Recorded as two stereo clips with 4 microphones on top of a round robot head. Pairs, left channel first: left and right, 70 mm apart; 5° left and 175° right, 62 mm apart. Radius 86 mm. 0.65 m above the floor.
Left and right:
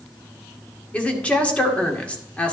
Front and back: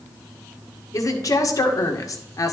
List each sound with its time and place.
0.9 s a woman speaking: 20° left, 1.9 m